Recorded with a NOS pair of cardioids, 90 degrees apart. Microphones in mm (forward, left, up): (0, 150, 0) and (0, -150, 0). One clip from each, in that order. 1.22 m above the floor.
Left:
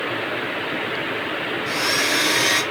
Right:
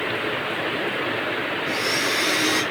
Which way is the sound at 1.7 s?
45° left.